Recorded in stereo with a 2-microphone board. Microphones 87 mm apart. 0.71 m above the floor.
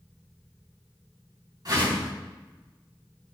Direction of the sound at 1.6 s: 50° right (ahead or behind).